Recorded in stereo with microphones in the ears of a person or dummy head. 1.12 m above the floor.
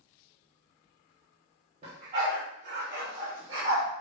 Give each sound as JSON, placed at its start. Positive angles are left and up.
{"t": 1.8, "sound": "a dog barking", "side_deg": -45, "distance_m": 1.6}